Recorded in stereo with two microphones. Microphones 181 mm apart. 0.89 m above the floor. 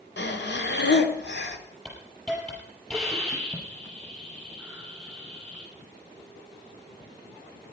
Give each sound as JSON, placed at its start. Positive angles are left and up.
{"t": 0.2, "sound": "breathing", "side_deg": 75, "distance_m": 1.3}
{"t": 1.9, "sound": "a hiss", "side_deg": 5, "distance_m": 5.5}